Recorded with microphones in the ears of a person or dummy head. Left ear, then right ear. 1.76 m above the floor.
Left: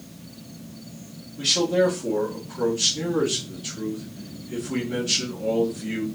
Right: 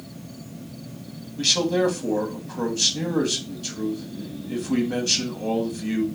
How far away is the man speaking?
About 1.9 m.